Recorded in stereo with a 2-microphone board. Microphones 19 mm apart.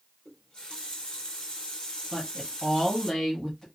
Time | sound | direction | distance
0.2 | a running tap | 60° left (ahead or behind) | 2.5 m
2.1 | a woman speaking | 30° left (ahead or behind) | 1.4 m